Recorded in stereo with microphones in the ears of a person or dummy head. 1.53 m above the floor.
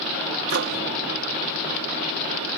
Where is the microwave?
65° right (ahead or behind).